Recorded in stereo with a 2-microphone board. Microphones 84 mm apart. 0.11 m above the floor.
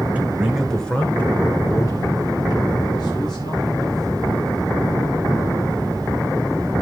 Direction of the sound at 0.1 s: 20° right (ahead or behind).